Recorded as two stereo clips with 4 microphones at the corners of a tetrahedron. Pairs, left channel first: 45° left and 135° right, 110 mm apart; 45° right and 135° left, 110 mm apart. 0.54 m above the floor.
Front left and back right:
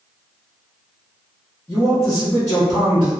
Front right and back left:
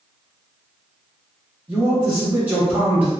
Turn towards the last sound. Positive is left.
turn(degrees=80)